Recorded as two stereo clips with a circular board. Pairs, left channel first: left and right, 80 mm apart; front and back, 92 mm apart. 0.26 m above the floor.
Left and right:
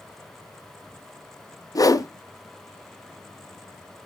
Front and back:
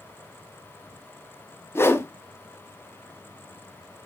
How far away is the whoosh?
About 0.6 m.